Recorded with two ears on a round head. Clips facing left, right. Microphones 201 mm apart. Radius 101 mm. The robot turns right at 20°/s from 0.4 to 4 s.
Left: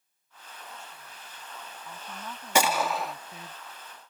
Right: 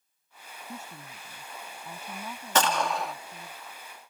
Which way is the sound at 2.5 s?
10° left (ahead or behind).